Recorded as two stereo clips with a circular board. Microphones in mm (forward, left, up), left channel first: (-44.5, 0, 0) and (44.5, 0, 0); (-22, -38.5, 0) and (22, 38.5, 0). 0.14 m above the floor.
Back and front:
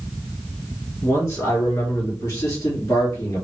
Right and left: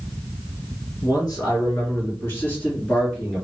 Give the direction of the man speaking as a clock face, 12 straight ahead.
5 o'clock.